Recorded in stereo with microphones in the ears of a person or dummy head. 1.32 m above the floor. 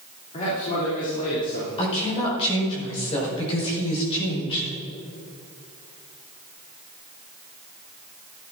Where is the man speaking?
40° left (ahead or behind), 3 m.